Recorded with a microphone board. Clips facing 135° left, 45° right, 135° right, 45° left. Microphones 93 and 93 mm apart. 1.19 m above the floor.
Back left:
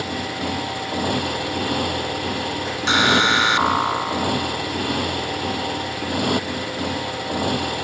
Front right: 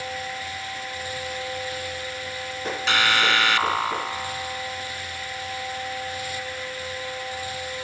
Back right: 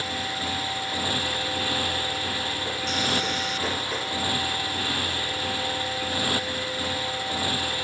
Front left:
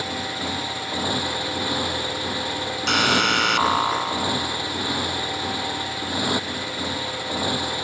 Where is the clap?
No clap in this recording.